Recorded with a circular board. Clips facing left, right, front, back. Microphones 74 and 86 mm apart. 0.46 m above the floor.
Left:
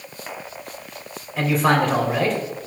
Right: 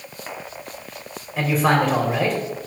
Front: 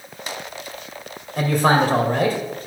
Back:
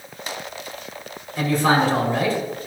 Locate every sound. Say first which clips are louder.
1.4 s a man speaking: even, front 1 dB; straight ahead, 2 m